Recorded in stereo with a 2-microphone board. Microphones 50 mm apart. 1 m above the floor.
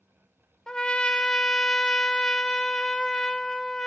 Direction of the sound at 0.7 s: 15° left (ahead or behind).